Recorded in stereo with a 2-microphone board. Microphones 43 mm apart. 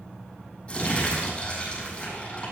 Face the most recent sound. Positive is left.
turn(degrees=30)  # may be behind; listen again after turning